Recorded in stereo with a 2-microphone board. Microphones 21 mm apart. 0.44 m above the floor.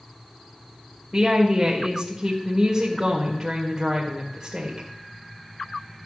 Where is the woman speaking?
30° right (ahead or behind), 1.8 m.